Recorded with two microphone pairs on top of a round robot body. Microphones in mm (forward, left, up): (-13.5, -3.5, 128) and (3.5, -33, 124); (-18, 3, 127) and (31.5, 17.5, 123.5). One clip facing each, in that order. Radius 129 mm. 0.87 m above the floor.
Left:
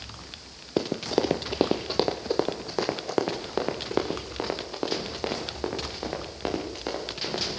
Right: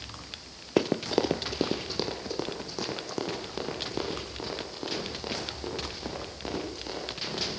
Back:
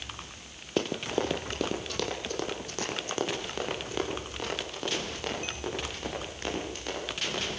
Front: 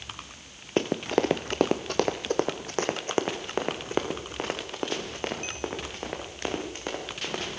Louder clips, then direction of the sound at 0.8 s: Even, front 4 dB; 55° right.